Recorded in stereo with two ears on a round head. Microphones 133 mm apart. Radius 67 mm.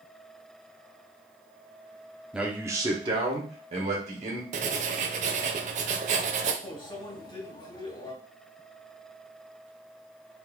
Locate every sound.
2.3 s a man speaking: 5° right (ahead or behind), 0.8 m; by 4.4 s 50° right (ahead or behind), 1.9 m
4.5 s writing: 50° right (ahead or behind), 0.6 m
6.6 s a microwave: 35° left (ahead or behind), 2.5 m